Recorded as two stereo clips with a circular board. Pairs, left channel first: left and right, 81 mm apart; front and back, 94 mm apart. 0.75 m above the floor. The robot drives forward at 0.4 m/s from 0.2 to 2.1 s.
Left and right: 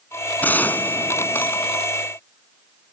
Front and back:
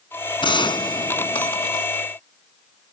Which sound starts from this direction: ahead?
A gunshot, at 0.4 s.